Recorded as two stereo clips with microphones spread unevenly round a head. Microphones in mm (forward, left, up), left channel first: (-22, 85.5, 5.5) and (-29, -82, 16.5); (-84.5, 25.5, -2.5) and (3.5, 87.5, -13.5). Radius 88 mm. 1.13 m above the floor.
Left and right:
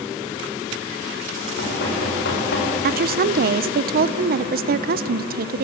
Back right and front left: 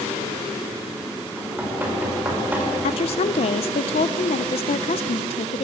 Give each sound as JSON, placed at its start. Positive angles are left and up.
{"t": 1.4, "sound": "knocking", "azimuth_deg": 110, "distance_m": 4.5}
{"t": 2.8, "sound": "a woman speaking", "azimuth_deg": -110, "distance_m": 0.5}